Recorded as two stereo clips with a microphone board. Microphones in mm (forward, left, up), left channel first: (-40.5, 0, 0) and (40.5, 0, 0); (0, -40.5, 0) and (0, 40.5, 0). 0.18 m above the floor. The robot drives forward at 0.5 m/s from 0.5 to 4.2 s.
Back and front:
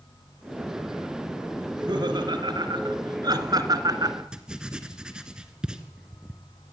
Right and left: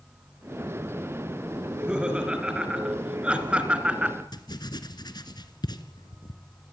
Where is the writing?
80° right, 2.0 m.